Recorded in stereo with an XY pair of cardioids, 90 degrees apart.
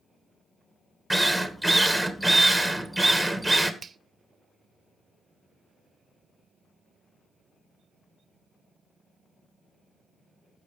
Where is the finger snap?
40° right, 0.8 m.